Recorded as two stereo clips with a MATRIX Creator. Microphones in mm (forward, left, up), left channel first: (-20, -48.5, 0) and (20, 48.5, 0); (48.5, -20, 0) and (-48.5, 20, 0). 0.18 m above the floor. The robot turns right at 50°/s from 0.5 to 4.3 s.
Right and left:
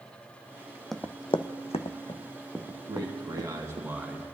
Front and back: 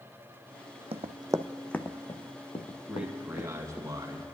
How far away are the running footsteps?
About 0.5 m.